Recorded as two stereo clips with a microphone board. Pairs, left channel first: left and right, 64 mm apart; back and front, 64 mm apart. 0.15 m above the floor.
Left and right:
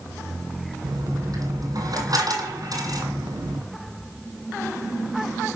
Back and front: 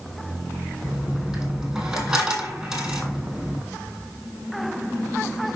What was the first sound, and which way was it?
A dropped coin, 80° right.